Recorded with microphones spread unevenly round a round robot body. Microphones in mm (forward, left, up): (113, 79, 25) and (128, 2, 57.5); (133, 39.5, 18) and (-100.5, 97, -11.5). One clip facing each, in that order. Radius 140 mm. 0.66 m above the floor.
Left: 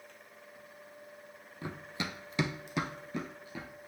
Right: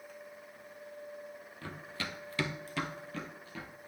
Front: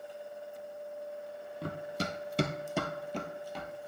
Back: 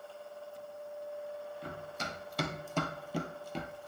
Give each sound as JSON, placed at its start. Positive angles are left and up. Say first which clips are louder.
{"t": 1.6, "sound": "running footsteps", "louder": "left 3 dB, front 6 dB", "azimuth_deg": 15, "distance_m": 1.0}